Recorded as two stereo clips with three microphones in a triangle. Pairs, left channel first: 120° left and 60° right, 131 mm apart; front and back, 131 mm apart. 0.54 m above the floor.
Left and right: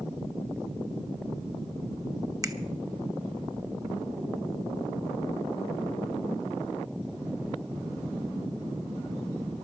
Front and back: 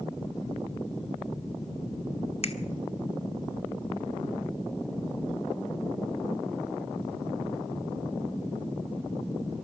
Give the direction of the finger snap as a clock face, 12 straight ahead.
12 o'clock.